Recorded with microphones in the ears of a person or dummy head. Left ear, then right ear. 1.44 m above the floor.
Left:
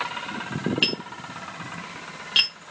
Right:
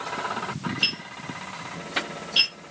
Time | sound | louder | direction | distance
0.8 | tapping | right 1 dB | 30° left (ahead or behind) | 0.9 m